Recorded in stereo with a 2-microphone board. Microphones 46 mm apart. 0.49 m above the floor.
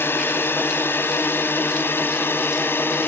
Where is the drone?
65° left (ahead or behind).